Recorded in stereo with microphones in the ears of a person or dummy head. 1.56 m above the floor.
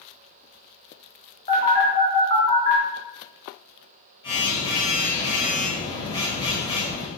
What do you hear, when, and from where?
1.5 s a phone buzzing: 20° left (ahead or behind), 1.2 m